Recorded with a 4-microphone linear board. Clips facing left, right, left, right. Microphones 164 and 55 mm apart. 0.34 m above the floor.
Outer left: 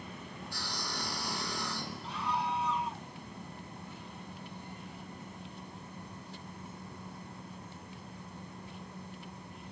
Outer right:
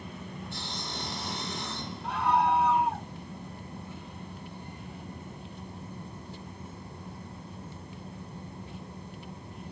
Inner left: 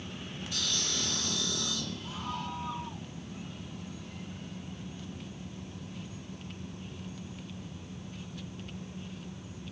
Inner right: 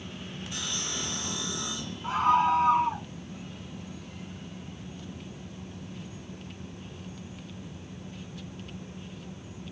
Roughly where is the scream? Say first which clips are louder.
Outer right 10 dB, inner right 20 dB; right.